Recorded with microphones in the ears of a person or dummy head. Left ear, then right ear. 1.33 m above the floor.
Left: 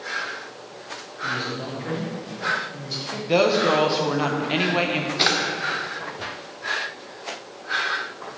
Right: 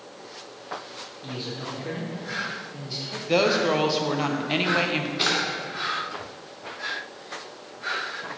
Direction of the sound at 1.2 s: 5° left (ahead or behind).